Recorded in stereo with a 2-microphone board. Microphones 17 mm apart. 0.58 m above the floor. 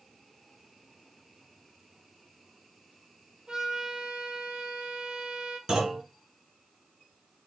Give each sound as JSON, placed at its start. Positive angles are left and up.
{"t": 3.5, "sound": "a trumpet", "side_deg": -80, "distance_m": 2.5}
{"t": 5.7, "sound": "a clunk", "side_deg": -50, "distance_m": 2.5}